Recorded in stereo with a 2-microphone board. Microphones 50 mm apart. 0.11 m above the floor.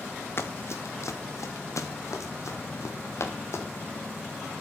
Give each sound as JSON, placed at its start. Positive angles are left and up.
{"t": 0.4, "sound": "running footsteps", "side_deg": 50, "distance_m": 1.6}